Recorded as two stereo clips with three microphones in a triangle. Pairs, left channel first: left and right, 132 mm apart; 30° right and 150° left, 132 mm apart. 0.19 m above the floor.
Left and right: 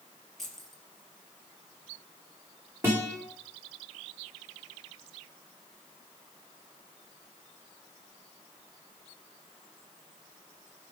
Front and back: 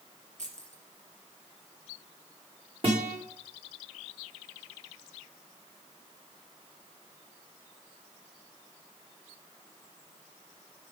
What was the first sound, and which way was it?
Keys jangling, straight behind.